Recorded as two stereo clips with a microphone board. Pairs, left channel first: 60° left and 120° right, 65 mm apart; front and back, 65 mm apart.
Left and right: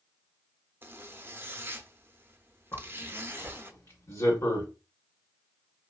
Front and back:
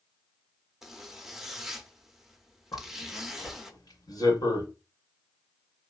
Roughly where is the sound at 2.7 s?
Ahead.